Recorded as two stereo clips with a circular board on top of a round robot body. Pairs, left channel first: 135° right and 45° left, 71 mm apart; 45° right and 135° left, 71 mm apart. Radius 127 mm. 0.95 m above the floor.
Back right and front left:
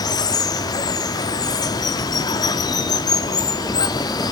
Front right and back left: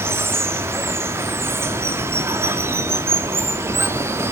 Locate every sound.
0.0 s running water: 170° right, 0.7 m